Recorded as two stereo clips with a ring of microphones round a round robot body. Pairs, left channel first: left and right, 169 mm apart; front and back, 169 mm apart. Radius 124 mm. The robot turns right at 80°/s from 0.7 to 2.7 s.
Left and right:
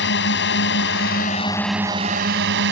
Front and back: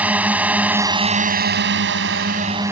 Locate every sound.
0.0 s a drone: 100° left; by 2.7 s 100° right